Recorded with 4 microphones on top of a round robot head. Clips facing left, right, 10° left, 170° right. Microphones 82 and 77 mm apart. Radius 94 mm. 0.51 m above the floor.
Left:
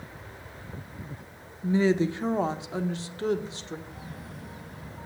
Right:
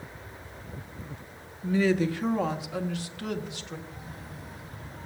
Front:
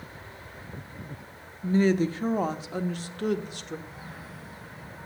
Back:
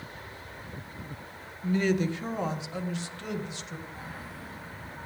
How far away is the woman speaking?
About 1.4 m.